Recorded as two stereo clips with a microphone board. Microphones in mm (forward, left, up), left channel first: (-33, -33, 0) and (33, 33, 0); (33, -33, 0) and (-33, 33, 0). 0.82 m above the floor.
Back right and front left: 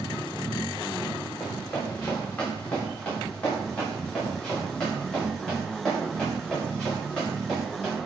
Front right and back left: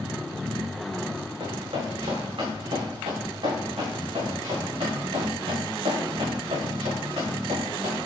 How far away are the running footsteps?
About 4.5 m.